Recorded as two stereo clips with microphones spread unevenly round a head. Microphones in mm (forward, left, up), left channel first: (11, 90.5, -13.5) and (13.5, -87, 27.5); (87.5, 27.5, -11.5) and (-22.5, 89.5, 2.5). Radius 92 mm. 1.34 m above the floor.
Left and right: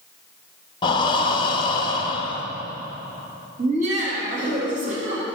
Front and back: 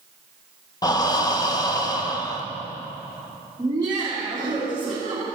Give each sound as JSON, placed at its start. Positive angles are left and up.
{"t": 0.8, "sound": "breathing", "azimuth_deg": 25, "distance_m": 0.8}
{"t": 3.6, "sound": "laughter", "azimuth_deg": -140, "distance_m": 2.0}